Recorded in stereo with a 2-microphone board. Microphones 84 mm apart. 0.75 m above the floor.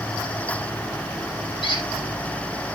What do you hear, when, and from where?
1.6 s a squeak: 70° left (ahead or behind), 5.5 m